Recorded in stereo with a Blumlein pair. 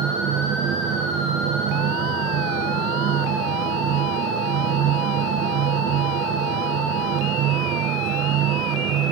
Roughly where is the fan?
Ahead right.